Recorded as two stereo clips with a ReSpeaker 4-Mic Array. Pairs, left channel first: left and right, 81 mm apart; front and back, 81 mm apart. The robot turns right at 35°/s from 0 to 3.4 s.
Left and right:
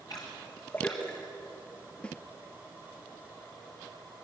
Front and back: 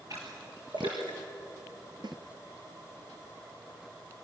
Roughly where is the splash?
Behind left.